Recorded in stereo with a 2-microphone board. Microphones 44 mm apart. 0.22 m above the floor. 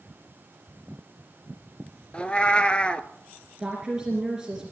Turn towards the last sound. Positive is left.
turn(degrees=-15)  # may be behind; listen again after turning